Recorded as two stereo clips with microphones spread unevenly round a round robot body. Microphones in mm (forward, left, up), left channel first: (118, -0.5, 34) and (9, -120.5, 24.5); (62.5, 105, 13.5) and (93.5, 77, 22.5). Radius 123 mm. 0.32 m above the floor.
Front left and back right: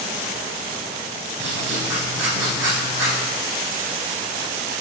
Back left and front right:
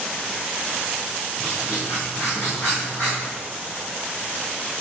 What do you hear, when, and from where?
1.4 s writing: 145° right, 3.5 m